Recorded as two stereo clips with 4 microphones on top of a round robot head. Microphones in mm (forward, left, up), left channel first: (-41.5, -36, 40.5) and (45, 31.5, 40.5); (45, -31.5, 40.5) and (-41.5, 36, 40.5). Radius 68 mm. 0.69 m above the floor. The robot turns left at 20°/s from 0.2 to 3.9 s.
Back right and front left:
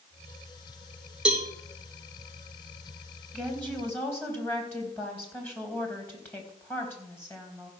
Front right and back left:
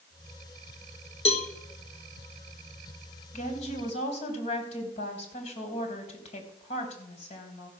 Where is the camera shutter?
I don't hear a camera shutter.